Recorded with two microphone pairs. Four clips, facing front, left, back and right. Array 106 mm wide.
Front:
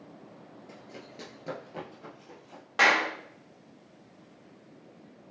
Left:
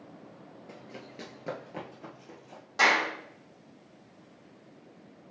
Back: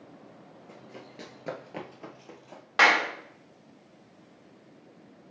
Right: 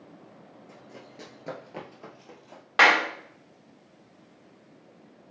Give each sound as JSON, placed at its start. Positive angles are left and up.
{"t": 0.7, "sound": "running footsteps", "azimuth_deg": 65, "distance_m": 0.9}
{"t": 2.8, "sound": "a clap", "azimuth_deg": -115, "distance_m": 0.7}